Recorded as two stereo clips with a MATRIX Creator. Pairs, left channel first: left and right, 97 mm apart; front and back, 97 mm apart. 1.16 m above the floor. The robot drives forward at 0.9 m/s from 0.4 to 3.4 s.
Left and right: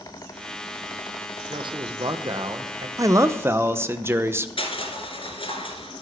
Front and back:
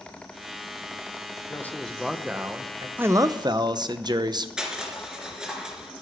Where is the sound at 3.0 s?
120° right, 0.5 m; by 4.5 s 150° right, 0.8 m.